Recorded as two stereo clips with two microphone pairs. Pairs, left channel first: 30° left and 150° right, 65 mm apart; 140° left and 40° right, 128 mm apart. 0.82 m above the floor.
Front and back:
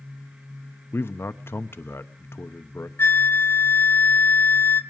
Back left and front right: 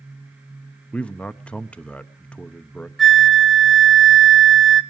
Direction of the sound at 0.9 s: 60° left.